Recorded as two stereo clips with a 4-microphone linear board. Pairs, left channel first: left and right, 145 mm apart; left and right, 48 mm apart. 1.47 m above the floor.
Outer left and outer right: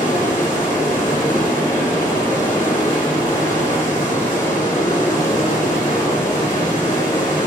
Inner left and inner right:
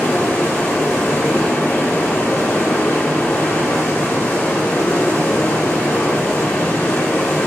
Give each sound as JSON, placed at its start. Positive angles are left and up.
{"t": 0.0, "sound": "running water", "side_deg": 65, "distance_m": 3.0}